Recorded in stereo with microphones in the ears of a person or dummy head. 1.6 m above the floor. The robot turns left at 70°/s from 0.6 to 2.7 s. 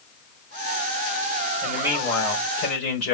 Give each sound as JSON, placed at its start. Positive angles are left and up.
{"t": 1.6, "sound": "a man speaking", "azimuth_deg": -155, "distance_m": 5.0}